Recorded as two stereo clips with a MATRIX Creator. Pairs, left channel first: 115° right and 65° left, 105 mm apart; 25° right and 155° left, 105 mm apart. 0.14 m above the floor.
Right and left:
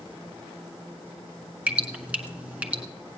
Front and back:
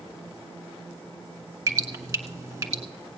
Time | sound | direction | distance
1.7 | dripping | 130° left | 1.4 m